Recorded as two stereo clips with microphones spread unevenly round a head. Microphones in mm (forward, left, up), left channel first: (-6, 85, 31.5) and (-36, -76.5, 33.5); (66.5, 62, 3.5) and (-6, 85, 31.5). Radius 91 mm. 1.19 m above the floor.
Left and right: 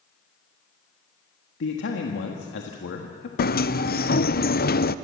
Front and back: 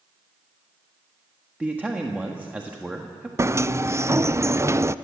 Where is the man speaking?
90° left, 1.6 m.